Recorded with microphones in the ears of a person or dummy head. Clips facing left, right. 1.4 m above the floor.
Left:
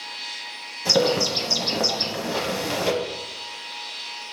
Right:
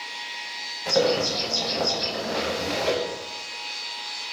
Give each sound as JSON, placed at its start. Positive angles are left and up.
{"t": 0.8, "sound": "a bird", "side_deg": 50, "distance_m": 0.8}